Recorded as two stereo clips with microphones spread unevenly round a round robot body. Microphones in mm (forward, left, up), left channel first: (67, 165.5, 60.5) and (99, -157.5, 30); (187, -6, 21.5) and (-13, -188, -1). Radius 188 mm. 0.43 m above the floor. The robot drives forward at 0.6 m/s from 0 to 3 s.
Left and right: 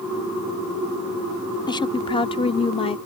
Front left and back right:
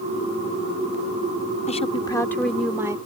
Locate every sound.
1.7 s a woman speaking: 25° left; by 3.0 s 165° left